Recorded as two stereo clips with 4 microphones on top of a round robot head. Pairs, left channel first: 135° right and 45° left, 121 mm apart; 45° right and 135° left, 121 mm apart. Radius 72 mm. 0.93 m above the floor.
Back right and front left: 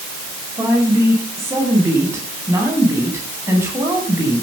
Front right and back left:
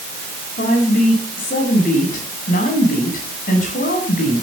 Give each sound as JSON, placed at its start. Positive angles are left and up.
{"t": 0.6, "sound": "a woman speaking", "azimuth_deg": -25, "distance_m": 9.5}